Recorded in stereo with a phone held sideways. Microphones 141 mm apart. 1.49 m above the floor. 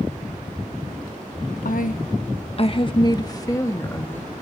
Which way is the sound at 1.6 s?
75° left (ahead or behind).